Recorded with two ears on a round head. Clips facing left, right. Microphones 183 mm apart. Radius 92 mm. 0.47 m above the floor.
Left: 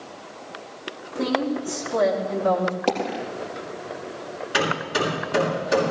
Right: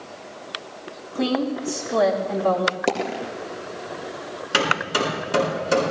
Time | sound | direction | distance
1.1 | a woman speaking | 70° right (ahead or behind) | 4.5 m
2.9 | a dropped coin | 20° right (ahead or behind) | 3.5 m
4.5 | hammering | 65° right (ahead or behind) | 6 m